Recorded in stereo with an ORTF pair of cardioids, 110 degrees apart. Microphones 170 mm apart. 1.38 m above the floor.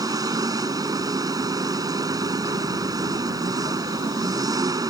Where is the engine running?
20° right.